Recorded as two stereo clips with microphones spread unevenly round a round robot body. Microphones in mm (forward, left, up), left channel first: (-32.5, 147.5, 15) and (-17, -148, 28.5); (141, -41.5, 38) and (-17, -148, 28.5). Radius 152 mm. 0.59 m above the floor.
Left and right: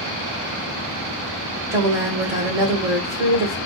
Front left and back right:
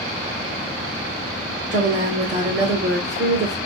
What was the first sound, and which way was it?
A woman speaking, 165° right.